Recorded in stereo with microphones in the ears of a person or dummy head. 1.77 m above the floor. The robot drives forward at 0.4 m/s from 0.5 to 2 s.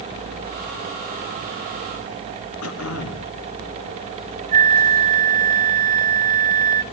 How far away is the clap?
No clap in this recording.